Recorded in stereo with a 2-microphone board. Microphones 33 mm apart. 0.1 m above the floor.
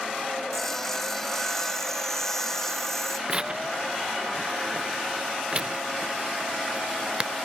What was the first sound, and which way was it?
Sawing, 10° left (ahead or behind).